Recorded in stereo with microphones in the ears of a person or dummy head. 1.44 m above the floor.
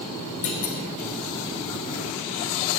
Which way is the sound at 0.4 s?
35° left (ahead or behind).